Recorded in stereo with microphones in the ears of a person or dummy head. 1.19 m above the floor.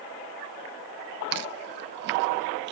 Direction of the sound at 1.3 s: 60° right (ahead or behind).